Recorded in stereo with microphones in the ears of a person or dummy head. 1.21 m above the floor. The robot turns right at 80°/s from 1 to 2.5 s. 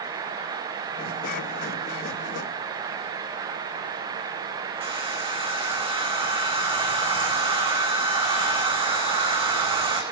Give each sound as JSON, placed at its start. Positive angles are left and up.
{"t": 4.8, "sound": "a hair dryer", "side_deg": -30, "distance_m": 4.5}